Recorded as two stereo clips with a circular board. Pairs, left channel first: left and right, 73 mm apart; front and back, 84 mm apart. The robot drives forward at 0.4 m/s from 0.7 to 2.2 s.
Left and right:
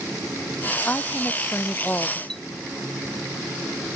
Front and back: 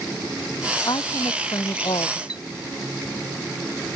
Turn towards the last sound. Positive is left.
turn(degrees=10)